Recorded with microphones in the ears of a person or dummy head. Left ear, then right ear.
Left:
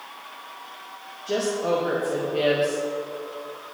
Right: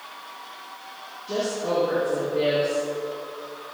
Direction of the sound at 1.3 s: 60° left (ahead or behind).